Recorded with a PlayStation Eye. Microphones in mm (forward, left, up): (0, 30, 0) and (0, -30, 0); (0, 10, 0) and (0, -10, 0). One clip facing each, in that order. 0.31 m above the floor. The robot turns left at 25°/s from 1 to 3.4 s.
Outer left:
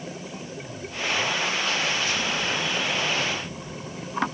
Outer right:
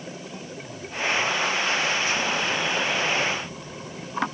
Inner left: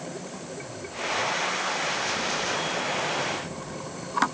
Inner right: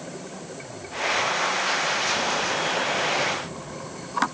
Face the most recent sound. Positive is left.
No sound to turn to.